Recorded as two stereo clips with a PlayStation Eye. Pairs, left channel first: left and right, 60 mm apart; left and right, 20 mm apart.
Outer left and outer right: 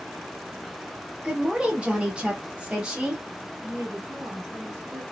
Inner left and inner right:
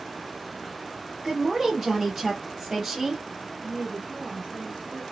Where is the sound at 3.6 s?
45° right (ahead or behind), 1.8 m.